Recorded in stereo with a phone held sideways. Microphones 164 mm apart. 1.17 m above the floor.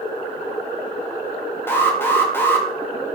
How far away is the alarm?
About 1.5 m.